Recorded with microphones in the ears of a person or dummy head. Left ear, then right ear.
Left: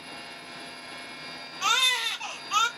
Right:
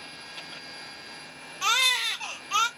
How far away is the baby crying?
About 0.5 m.